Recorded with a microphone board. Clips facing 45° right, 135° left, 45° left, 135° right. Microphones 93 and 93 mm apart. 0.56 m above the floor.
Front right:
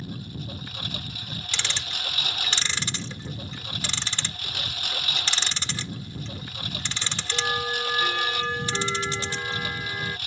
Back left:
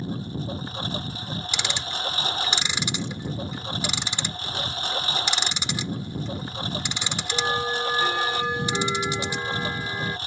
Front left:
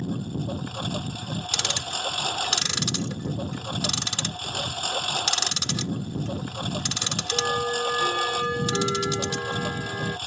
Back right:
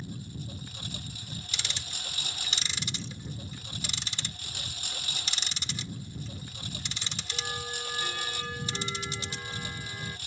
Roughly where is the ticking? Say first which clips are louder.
Back left 1 dB, front left 11 dB; ahead left.